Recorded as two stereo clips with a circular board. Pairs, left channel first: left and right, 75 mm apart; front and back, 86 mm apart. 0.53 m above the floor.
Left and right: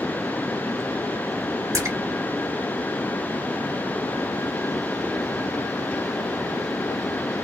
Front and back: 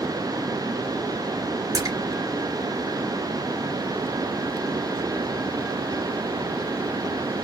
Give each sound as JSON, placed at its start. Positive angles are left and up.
{"t": 1.7, "sound": "a splash", "azimuth_deg": -135, "distance_m": 2.0}